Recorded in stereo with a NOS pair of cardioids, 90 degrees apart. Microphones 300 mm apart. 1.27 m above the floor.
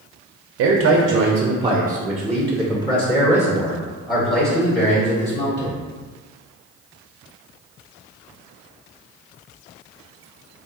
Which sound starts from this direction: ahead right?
A man speaking, at 0.6 s.